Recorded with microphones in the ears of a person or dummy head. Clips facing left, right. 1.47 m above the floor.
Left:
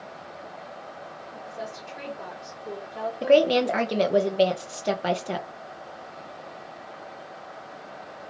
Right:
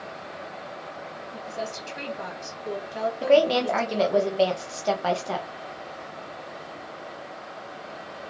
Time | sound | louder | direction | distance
1.3 | a woman speaking | right 4 dB | 85° right | 2 m
3.2 | a woman speaking | left 1 dB | 20° left (ahead or behind) | 0.6 m